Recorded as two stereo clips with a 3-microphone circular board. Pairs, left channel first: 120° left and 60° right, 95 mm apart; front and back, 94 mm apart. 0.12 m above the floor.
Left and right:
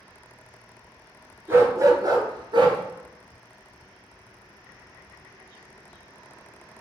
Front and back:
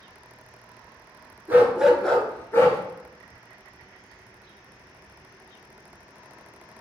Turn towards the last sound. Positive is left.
turn(degrees=-50)